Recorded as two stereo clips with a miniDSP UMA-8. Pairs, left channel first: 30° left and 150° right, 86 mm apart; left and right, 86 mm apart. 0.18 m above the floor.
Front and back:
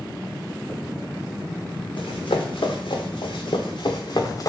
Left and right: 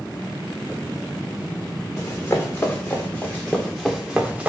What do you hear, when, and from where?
2.0 s running footsteps: 35° left, 1.7 m; by 4.5 s 15° right, 1.0 m